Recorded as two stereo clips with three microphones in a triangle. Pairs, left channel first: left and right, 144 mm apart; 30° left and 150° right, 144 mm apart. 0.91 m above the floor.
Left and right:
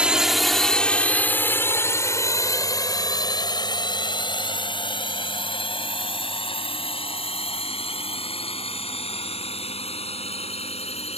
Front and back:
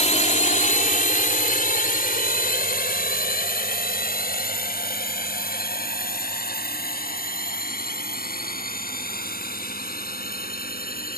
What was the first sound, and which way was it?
A drone, 10° right.